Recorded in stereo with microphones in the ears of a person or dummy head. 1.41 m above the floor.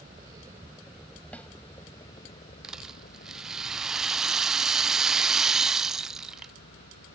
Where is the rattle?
5° right (ahead or behind).